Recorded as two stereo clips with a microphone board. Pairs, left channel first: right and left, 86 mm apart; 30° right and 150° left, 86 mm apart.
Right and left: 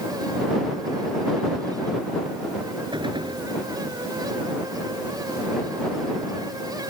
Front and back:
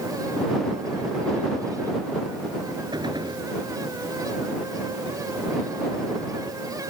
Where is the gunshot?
115° left.